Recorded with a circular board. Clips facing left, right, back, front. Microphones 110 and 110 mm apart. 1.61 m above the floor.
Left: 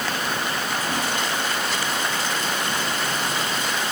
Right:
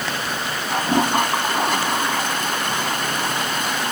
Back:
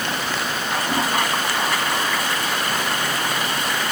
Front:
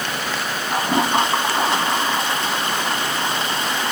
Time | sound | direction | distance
0.7 | a toilet flushing | 60° right | ?